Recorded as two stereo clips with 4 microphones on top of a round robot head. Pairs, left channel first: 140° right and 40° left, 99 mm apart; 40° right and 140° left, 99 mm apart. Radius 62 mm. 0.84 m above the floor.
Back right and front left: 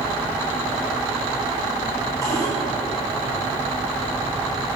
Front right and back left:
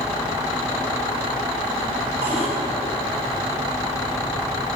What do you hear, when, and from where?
2.2 s a cupboard door: 155° left, 5 m